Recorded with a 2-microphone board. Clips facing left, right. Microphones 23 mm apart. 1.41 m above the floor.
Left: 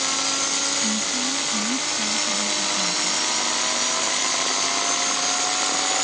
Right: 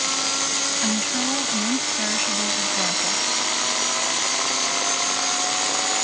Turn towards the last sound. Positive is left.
turn(degrees=-40)  # may be behind; listen again after turning